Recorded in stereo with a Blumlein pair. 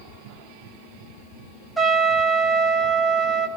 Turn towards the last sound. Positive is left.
turn(degrees=-5)